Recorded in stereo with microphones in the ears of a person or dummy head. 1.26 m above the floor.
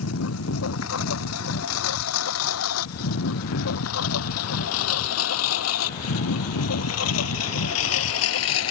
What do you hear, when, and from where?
0.0 s a lawn mower: 85° left; by 8.7 s 80° left